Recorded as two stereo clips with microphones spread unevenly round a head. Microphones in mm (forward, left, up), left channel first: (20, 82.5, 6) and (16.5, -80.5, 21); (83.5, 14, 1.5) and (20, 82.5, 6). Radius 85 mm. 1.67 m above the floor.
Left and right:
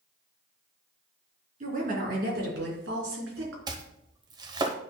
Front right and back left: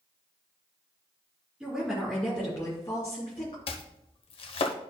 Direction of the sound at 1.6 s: 140° right.